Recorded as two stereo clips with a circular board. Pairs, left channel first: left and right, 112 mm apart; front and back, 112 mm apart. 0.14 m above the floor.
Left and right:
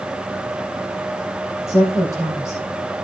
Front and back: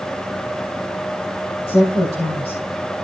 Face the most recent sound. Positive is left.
turn(degrees=25)